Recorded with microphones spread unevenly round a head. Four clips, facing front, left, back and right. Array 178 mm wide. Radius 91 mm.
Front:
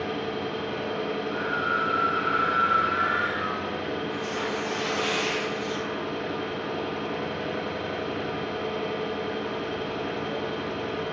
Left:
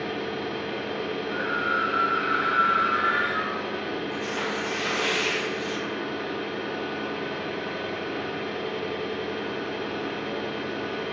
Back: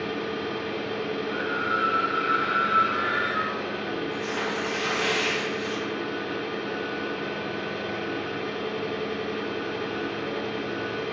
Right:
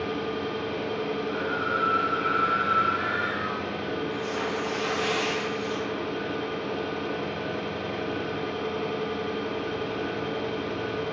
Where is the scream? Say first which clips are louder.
Left 1 dB, even; 110° left, 0.8 m.